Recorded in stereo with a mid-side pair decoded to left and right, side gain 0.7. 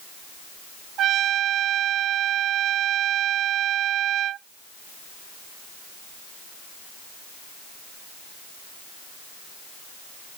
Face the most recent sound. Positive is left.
turn(degrees=-50)